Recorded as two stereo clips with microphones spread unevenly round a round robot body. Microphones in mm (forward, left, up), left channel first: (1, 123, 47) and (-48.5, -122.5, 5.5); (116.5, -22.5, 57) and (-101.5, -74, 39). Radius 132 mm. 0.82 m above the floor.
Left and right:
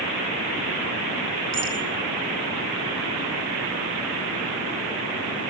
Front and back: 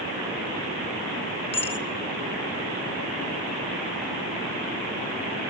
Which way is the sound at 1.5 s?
50° right.